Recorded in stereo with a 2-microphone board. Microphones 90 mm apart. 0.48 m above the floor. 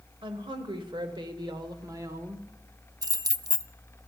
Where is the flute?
No flute in this recording.